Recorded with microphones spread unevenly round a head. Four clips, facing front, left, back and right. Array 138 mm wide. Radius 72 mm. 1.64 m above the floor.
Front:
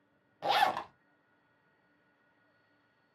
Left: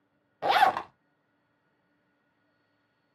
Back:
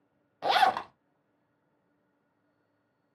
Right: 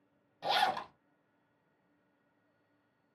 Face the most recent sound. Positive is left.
turn(degrees=110)